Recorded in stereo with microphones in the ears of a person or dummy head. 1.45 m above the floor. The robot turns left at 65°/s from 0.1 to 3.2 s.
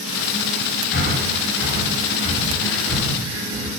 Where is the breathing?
60° left (ahead or behind), 3 m; by 3.7 s 30° right (ahead or behind), 3 m.